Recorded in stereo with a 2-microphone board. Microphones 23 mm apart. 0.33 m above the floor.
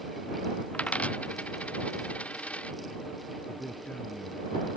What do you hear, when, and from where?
0.7 s a dropped coin: 85° left
3.5 s a man speaking: 75° left (ahead or behind)